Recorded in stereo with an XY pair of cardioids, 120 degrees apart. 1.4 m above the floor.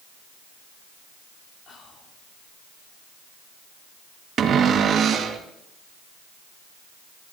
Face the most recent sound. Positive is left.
turn(degrees=-50)